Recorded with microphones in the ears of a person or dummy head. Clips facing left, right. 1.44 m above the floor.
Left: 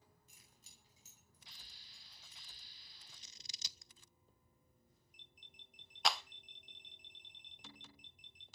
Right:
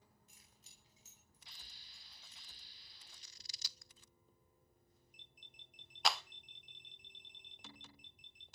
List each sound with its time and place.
0.3 s keys jangling: 90° left, 10 m; by 2.5 s 85° left, 11.5 m
3.1 s scissors: 20° left (ahead or behind), 0.6 m
6.0 s a clap: centre (ahead or behind), 0.5 m